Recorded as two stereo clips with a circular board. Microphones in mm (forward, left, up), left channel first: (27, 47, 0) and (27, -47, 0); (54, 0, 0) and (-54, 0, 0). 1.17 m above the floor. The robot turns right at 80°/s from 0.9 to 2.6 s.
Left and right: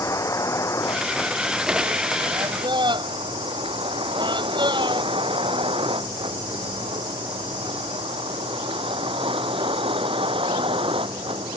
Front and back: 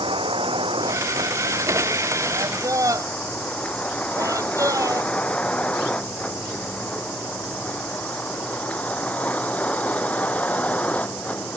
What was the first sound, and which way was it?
A vehicle, 145° left.